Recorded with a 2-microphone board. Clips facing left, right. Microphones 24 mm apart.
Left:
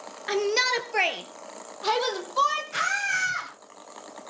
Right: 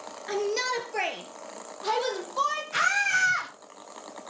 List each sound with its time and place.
0.3 s a shout: 35° left (ahead or behind), 1.3 m; by 2.6 s 25° left (ahead or behind), 4 m
2.7 s a scream: centre (ahead or behind), 8.5 m